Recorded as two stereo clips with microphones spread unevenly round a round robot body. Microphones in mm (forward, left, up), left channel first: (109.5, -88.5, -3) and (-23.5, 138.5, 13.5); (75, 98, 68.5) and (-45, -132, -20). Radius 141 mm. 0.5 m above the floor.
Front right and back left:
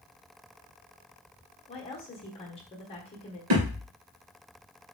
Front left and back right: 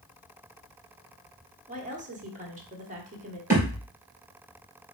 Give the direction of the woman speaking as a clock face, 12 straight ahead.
4 o'clock.